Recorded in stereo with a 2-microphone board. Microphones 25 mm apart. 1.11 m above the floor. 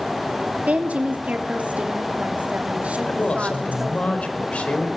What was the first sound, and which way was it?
A woman speaking, 75° right (ahead or behind).